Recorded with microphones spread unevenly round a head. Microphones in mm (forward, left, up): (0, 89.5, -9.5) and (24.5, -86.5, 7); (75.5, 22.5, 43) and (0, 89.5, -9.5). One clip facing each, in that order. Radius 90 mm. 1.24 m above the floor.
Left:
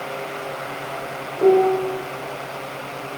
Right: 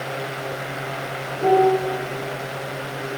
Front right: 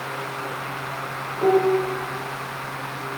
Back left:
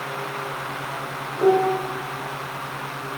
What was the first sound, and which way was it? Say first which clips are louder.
A piano: left 2 dB, even; 60° left.